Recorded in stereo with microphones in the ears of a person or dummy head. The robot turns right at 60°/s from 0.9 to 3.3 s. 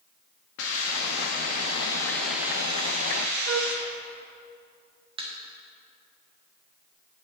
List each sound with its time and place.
0.6 s a hiss: 100° left, 1.5 m; by 3.8 s 115° right, 1.5 m
3.5 s a flute: 80° right, 0.8 m
5.2 s a thud: 35° right (ahead or behind), 1.4 m